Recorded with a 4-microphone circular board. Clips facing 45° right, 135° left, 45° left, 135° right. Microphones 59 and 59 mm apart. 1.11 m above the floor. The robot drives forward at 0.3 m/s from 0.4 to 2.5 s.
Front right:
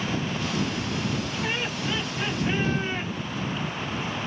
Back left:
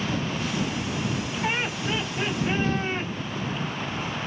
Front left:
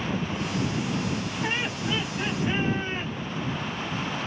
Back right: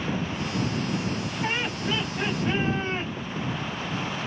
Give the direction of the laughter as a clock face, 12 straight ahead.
5 o'clock.